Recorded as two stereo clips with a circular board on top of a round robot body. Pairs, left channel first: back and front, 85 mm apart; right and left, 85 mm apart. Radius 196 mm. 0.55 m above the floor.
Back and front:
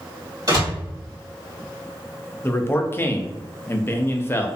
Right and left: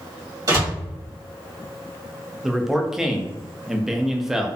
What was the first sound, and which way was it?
A door slam, 45° left.